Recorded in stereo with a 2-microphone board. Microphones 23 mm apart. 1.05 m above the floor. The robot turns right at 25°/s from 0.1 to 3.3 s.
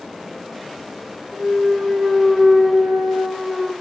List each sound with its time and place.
1.3 s a clunk: 45° right, 3 m; by 3.7 s straight ahead, 3 m